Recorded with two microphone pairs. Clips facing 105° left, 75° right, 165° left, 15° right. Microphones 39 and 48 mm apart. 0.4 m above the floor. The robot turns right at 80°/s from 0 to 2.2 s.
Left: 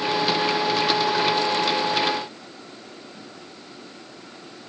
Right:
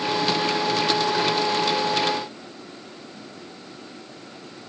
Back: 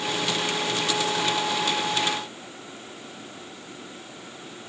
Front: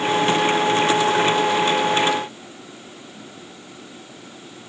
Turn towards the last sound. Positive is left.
No sound to turn to.